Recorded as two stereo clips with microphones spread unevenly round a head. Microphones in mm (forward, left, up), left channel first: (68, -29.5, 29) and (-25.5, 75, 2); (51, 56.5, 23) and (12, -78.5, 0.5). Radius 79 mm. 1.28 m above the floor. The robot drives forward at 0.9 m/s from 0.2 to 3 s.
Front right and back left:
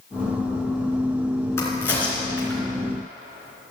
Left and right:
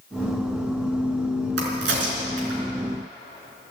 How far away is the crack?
About 3.5 m.